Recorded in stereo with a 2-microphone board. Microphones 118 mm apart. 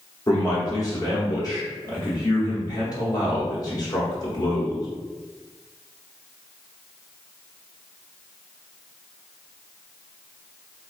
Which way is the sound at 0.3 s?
30° left (ahead or behind).